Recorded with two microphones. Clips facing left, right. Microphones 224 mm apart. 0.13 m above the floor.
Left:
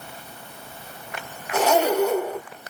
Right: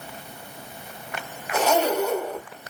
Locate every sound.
1.5 s a zipper: 5° left (ahead or behind), 4 m